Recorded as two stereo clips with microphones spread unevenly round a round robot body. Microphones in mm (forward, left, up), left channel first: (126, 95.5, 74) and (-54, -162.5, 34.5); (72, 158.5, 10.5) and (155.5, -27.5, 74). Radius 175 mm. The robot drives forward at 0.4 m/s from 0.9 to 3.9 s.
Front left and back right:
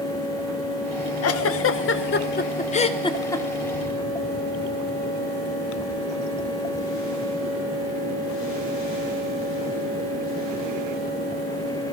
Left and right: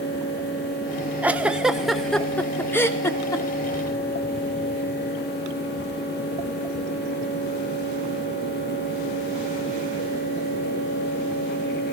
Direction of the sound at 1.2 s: 35° left.